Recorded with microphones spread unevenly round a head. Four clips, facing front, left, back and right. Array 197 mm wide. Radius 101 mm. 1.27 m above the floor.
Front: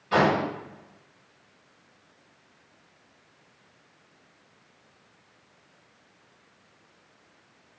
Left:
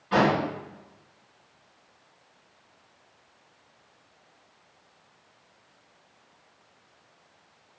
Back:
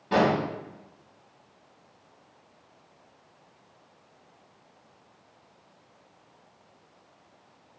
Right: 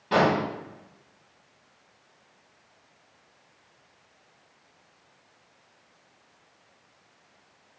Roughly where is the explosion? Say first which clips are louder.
Even, front 1 dB; behind right.